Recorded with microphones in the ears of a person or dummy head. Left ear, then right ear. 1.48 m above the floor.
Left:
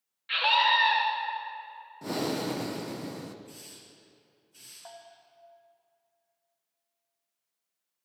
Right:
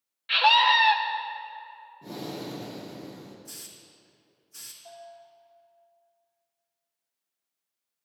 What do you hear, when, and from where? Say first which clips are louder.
0.3 s a scream: right 4 dB; 15° right (ahead or behind), 0.6 m
2.0 s breathing: left 6 dB; 55° left (ahead or behind), 0.7 m
3.5 s a hiss: right 3 dB; 50° right (ahead or behind), 1.8 m
4.8 s a bell: right 3 dB; 55° left (ahead or behind), 1.0 m